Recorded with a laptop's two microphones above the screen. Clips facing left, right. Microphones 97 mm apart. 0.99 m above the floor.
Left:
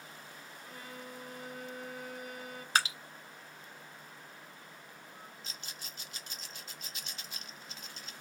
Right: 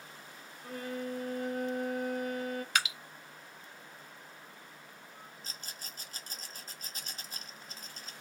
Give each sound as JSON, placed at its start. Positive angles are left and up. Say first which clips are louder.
{"t": 0.6, "sound": "a violin", "louder": "right 11 dB", "side_deg": -55, "distance_m": 0.9}
{"t": 2.8, "sound": "dripping", "louder": "left 5 dB", "side_deg": 35, "distance_m": 0.7}
{"t": 5.4, "sound": "a rattle", "louder": "even", "side_deg": -40, "distance_m": 0.5}